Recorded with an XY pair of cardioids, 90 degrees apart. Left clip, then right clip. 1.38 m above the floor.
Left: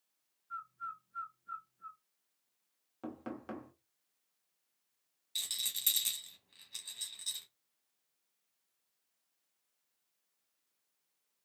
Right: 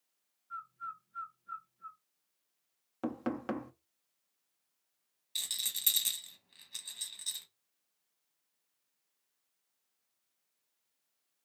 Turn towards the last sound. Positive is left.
turn(degrees=-10)